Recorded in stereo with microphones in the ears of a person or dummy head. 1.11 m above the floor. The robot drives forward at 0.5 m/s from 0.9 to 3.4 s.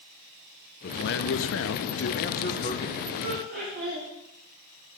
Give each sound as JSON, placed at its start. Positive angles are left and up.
{"t": 0.8, "sound": "a man speaking", "side_deg": 50, "distance_m": 0.6}
{"t": 3.2, "sound": "laughter", "side_deg": -75, "distance_m": 4.5}